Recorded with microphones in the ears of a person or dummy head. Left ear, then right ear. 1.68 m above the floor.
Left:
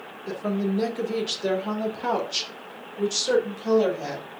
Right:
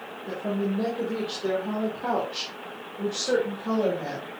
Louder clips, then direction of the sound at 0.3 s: Left 1 dB; 70° left (ahead or behind).